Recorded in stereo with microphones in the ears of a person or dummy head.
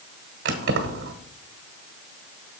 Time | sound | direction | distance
0.5 | keys jangling | 60° right (ahead or behind) | 1.3 m